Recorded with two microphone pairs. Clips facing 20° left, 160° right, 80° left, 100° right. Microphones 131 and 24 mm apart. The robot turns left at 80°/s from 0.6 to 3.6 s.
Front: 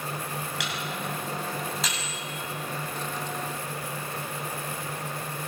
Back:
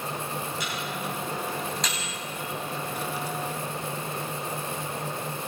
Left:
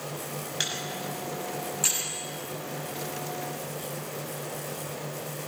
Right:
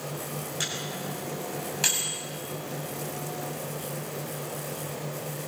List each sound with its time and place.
0.6 s a microwave: 30° left, 6 m; by 2.2 s 95° right, 6 m